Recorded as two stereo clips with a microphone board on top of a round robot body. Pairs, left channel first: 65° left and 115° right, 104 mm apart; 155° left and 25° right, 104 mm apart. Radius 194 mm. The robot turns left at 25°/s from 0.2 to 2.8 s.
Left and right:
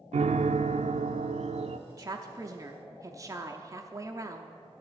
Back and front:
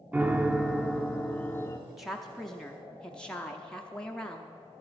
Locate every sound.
0.1 s a piano: 95° right, 0.5 m; by 1.8 s 135° right, 0.5 m
1.9 s a woman speaking: 105° right, 0.9 m; by 4.6 s 130° right, 0.9 m